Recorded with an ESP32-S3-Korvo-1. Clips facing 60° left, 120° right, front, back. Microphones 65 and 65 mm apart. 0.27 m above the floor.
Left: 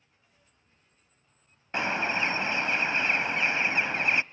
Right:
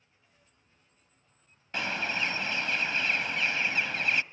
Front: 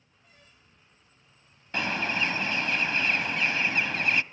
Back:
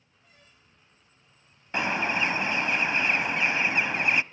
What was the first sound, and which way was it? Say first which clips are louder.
A bird: left 4 dB, back 2 dB; 120° left.